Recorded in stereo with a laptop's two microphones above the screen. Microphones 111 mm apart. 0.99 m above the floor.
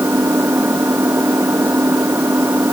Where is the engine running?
20° right (ahead or behind).